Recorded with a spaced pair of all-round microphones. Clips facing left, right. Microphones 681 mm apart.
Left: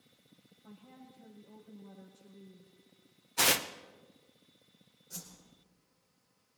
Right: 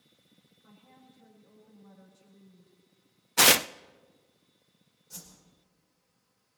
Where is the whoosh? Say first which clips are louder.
Left 1 dB; 35° right (ahead or behind), 5.5 m.